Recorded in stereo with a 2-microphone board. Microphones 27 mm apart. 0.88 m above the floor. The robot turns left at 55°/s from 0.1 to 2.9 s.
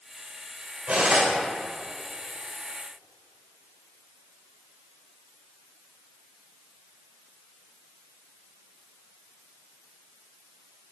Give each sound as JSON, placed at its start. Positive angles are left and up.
{"t": 0.9, "sound": "cutlery clinking", "side_deg": -55, "distance_m": 2.5}